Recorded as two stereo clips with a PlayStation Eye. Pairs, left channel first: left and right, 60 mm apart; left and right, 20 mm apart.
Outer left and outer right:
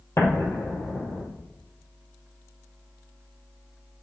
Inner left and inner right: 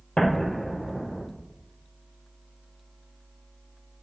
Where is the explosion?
55° left (ahead or behind), 2.5 m.